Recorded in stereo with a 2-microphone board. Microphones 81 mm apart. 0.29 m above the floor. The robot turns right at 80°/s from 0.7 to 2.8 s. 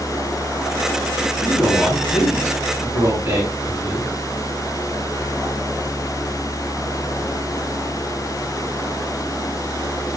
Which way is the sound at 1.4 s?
125° left.